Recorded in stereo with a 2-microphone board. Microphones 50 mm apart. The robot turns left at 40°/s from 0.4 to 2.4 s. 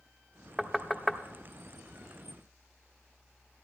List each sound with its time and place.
0.6 s knocking: 5° right (ahead or behind), 0.6 m; by 1.2 s 10° left (ahead or behind), 0.6 m